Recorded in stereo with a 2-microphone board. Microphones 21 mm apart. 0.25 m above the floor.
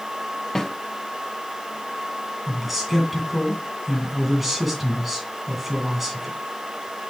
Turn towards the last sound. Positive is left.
turn(degrees=-10)  # may be behind; listen again after turning